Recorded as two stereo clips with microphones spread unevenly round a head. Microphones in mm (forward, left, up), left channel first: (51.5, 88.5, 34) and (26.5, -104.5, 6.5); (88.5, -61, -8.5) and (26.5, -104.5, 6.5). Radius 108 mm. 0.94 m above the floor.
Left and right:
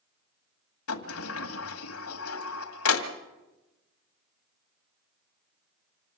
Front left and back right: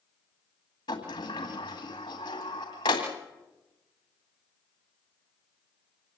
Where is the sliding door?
100° left, 1.9 m.